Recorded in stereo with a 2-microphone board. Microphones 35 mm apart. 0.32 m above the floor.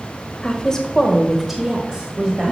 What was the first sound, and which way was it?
A woman speaking, 25° left (ahead or behind).